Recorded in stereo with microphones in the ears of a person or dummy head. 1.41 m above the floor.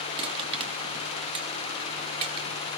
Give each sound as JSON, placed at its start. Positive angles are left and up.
{"t": 0.2, "sound": "crushing", "side_deg": -25, "distance_m": 1.3}